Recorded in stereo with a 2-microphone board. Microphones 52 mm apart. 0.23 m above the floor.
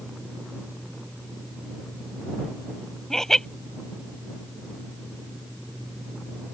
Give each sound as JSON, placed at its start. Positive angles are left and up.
{"t": 3.1, "sound": "laughter", "side_deg": 10}